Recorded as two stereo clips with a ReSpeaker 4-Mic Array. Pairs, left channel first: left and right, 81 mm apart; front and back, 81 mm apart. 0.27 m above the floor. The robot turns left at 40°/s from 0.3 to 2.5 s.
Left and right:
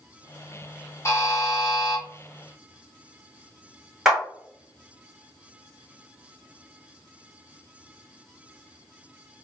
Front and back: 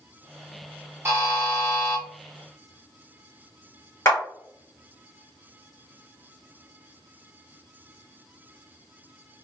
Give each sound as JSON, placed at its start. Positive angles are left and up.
{"t": 1.1, "sound": "a buzzer", "azimuth_deg": 130, "distance_m": 1.0}
{"t": 4.0, "sound": "a clap", "azimuth_deg": -10, "distance_m": 1.4}